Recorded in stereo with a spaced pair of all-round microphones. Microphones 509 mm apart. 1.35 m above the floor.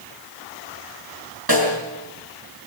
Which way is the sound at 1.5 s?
45° right (ahead or behind).